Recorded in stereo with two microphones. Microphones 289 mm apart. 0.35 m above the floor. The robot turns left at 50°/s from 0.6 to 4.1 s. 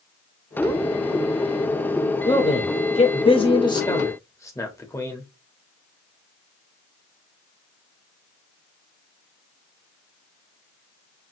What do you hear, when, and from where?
2.2 s a man speaking: 15° left (ahead or behind), 0.8 m; by 5.3 s 10° left (ahead or behind), 0.8 m